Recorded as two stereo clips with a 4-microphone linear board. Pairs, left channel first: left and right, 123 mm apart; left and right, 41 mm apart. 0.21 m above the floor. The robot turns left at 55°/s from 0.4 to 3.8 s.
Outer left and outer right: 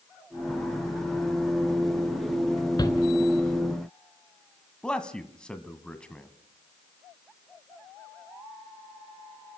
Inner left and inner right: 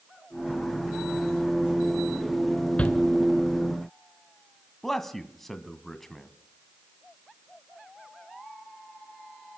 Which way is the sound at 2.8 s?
35° left (ahead or behind).